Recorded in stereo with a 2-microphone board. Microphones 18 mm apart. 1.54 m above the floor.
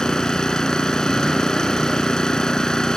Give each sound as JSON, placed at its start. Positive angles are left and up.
{"t": 0.0, "sound": "an engine running", "side_deg": 40}